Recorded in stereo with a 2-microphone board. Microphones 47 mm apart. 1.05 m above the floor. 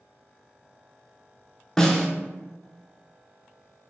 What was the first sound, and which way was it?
A snare drum, 15° left (ahead or behind).